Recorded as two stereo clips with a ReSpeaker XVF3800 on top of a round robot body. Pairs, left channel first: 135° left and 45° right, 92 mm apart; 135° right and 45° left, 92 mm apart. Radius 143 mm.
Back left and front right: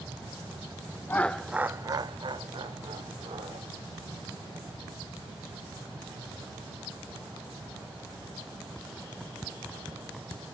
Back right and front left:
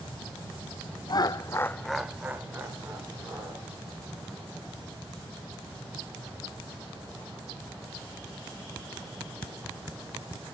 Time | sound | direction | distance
1.1 | laughter | 160° right | 0.9 m